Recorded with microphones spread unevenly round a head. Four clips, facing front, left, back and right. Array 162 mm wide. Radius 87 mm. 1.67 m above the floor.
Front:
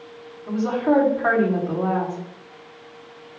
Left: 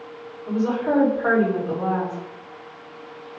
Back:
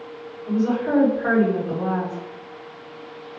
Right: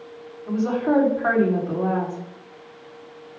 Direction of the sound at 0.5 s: 45° left.